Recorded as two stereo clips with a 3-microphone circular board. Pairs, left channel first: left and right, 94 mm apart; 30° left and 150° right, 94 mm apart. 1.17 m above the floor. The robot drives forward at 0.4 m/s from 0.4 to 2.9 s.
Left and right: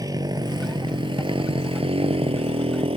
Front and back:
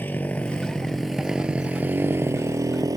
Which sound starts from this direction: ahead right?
A motorcycle, at 0.0 s.